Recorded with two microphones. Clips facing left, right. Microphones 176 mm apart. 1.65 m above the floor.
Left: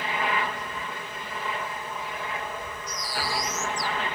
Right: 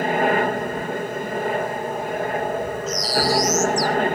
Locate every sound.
0.0 s a helicopter: 50° right (ahead or behind)
2.9 s a bird: 85° right